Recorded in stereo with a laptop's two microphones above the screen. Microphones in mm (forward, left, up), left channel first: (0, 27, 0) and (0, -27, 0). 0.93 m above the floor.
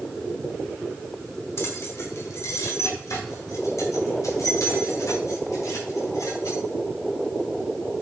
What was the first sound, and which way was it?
Keys jangling, 55° left (ahead or behind).